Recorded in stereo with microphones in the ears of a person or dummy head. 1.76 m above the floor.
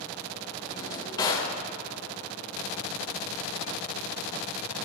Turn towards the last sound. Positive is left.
turn(degrees=35)  # may be behind; listen again after turning